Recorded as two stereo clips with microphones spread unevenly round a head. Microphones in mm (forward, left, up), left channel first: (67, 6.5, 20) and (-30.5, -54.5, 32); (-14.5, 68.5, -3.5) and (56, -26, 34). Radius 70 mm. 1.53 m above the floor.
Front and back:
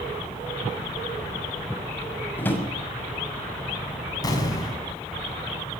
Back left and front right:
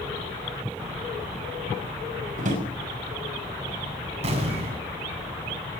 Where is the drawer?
45° right, 6.5 m.